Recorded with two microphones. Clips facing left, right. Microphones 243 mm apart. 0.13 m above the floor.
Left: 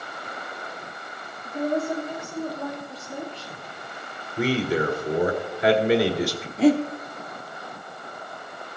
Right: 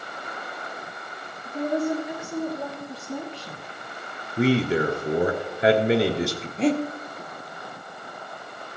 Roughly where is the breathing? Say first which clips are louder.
Left 4 dB; centre.